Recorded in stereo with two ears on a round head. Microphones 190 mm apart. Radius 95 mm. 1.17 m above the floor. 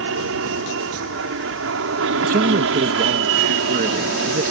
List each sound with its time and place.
0.0 s an aircraft: 70° right (ahead or behind); by 4.5 s 65° right (ahead or behind)
2.2 s a man speaking: 40° right (ahead or behind)